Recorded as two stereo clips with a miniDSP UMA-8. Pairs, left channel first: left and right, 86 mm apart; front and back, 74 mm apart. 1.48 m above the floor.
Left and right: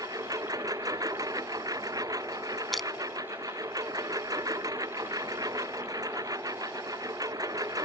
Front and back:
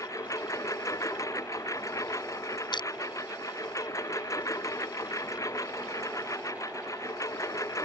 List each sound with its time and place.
0.0 s a lawn mower: 45° right
2.7 s crushing: straight ahead